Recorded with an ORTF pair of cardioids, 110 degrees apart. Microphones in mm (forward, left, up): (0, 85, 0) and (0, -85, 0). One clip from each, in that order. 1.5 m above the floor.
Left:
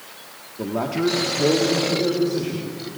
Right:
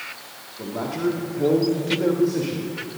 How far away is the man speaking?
About 1.7 m.